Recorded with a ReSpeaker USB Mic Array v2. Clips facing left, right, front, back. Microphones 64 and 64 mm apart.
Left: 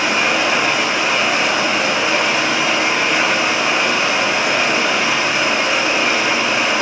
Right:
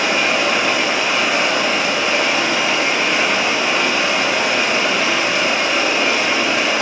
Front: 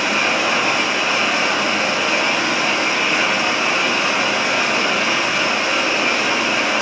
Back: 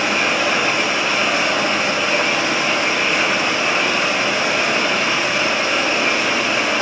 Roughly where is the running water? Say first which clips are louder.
Even, even; left.